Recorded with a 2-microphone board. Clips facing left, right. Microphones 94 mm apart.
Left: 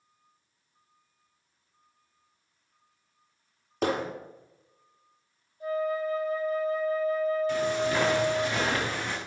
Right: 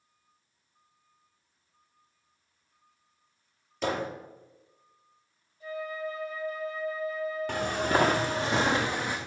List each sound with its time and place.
3.8 s hammering: 55° left (ahead or behind), 3.5 m
5.6 s a flute: 45° left (ahead or behind), 4.5 m
7.5 s footsteps: 60° right (ahead or behind), 2.5 m; by 9.2 s 10° right (ahead or behind), 2.5 m